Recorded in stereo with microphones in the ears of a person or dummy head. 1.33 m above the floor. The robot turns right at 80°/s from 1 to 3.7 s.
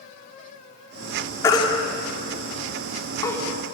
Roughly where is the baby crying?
Centre.